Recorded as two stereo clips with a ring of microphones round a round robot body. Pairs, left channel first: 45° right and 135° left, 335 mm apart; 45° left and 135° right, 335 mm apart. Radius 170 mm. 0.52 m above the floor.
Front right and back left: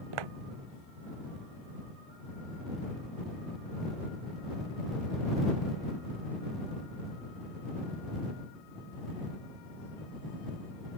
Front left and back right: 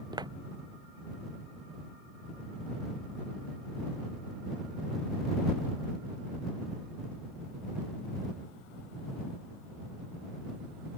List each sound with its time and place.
0.1 s footsteps: 145° left